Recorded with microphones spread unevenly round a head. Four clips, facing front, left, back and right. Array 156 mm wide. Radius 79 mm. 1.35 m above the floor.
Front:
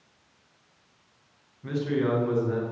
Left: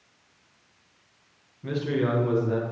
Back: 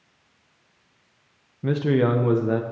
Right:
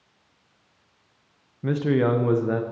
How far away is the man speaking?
About 0.6 m.